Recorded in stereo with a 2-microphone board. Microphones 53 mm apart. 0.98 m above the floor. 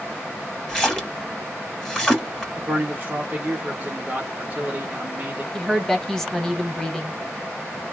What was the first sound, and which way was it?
A splash, 15° left (ahead or behind).